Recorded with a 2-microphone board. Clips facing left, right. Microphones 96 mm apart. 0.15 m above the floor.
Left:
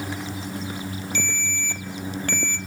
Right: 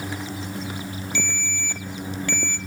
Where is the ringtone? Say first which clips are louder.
Even; 50° left (ahead or behind), 1.0 m.